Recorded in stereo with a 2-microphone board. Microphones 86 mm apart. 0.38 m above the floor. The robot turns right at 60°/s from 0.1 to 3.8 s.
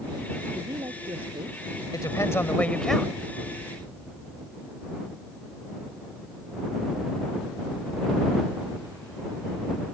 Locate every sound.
0.5 s a woman speaking: 135° right; by 1.8 s 60° right
1.9 s a woman speaking: 115° left; by 3.1 s 170° right